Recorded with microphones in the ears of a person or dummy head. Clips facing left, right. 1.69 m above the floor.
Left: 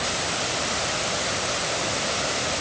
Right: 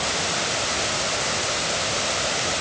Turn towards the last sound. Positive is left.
No sound to turn to.